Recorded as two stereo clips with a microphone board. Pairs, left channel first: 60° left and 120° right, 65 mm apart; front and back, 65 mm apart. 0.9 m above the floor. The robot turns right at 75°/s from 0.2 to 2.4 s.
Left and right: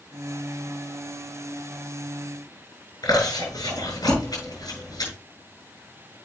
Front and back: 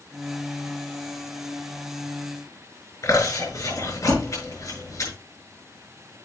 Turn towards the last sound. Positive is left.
turn(degrees=40)